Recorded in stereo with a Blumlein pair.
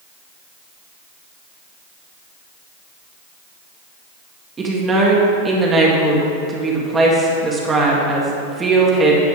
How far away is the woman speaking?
About 1.6 m.